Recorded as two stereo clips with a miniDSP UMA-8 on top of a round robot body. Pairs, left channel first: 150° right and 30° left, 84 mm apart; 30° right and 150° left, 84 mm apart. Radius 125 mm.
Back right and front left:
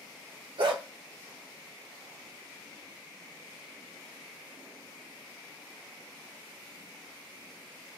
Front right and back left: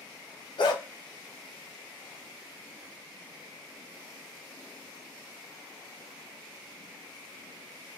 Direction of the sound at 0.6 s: 5° left.